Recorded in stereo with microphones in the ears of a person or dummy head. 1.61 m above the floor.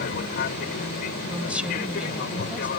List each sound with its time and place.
0.0 s an aircraft: 50° left (ahead or behind)
1.3 s a woman speaking: centre (ahead or behind)